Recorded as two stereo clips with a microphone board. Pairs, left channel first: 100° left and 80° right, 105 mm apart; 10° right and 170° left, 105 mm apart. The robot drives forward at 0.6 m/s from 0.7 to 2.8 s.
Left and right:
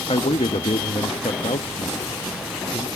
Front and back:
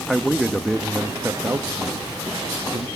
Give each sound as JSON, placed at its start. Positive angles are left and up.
{"t": 0.1, "sound": "a man speaking", "azimuth_deg": 80, "distance_m": 1.0}